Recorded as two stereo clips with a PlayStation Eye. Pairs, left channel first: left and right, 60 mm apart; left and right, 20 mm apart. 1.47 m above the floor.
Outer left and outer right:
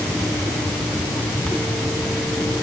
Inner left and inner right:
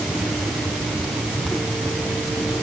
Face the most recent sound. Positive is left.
No sound to turn to.